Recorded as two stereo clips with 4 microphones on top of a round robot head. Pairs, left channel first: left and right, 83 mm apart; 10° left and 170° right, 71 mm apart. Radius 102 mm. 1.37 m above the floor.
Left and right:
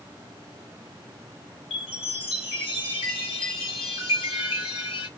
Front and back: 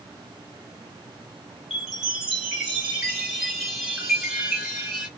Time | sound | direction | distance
1.7 | a chime | 105° left | 1.3 m